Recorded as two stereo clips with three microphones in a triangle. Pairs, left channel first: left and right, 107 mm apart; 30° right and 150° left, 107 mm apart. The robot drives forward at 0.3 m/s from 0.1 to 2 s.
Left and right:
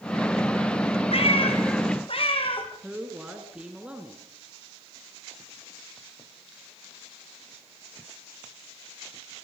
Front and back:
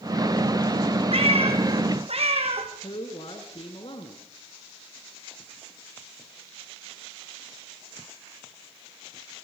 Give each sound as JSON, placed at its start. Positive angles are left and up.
{"t": 1.1, "sound": "a cat meowing", "azimuth_deg": 120, "distance_m": 3.5}
{"t": 2.8, "sound": "a man speaking", "azimuth_deg": -10, "distance_m": 3.0}